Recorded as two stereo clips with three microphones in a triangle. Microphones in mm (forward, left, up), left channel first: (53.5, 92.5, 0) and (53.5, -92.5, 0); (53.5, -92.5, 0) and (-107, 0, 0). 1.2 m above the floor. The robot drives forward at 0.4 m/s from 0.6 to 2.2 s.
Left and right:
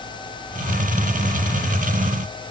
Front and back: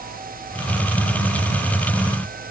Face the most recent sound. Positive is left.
No sound to turn to.